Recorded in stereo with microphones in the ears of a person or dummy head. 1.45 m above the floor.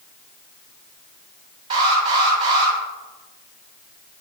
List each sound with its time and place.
1.7 s an alarm: 25° right (ahead or behind), 4 m